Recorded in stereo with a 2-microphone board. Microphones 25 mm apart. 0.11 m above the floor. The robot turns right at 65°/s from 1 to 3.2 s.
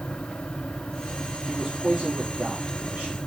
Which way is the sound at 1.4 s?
Straight behind.